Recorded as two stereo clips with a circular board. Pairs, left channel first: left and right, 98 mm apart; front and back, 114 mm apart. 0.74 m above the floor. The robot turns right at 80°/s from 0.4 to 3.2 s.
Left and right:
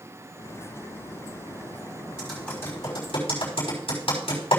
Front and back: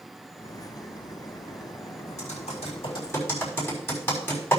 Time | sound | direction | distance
2.2 | typing on a keyboard | 10° right | 5.5 m